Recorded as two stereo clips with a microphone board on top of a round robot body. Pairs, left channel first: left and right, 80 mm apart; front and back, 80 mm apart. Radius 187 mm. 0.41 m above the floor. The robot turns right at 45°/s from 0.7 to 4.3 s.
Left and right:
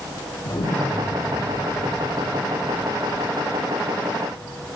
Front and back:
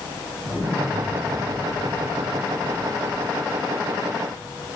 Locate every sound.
0.5 s an explosion: 120° left, 6 m; by 4.7 s 75° right, 6 m